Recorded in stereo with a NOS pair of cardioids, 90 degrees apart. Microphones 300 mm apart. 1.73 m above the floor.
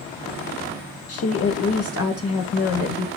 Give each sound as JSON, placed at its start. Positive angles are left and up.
{"t": 1.1, "sound": "a woman speaking", "azimuth_deg": 55, "distance_m": 1.3}